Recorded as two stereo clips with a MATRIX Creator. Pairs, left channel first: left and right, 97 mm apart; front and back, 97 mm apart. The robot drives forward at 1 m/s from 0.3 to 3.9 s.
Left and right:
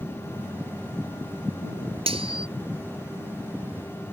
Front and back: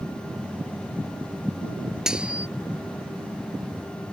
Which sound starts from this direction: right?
Cutlery clinking, at 2.1 s.